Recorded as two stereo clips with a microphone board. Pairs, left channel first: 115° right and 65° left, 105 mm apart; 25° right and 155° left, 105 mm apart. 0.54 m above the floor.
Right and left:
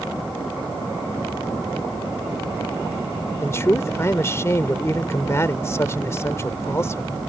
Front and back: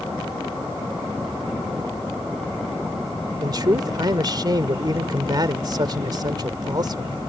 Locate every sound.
3.4 s a man speaking: 170° right